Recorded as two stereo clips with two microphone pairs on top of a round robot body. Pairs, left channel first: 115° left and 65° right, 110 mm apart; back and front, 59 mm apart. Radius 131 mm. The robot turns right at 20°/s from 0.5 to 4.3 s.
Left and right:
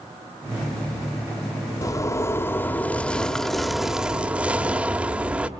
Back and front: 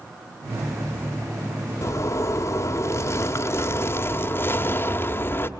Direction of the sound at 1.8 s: 170° left.